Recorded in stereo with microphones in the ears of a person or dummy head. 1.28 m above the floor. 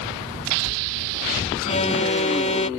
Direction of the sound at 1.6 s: 40° left (ahead or behind).